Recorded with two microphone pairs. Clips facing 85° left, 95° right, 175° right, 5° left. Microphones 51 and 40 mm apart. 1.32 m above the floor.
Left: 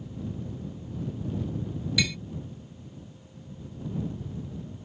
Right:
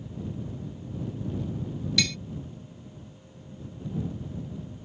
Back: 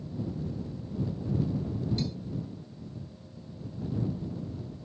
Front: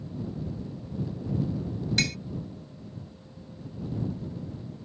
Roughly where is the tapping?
Ahead.